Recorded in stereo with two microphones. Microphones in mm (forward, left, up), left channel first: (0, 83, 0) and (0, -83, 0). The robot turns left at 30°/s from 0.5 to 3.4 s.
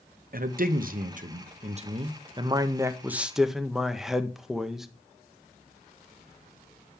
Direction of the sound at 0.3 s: 90° right.